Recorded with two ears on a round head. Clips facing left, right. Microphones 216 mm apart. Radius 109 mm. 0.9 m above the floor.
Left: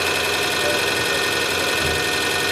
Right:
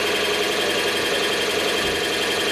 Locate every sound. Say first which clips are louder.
0.0 s an engine running: right 2 dB; 50° left (ahead or behind), 0.9 m